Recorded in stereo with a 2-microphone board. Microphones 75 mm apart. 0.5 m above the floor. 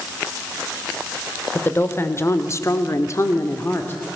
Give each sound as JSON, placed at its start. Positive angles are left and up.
{"t": 1.6, "sound": "a woman speaking", "side_deg": 30, "distance_m": 1.7}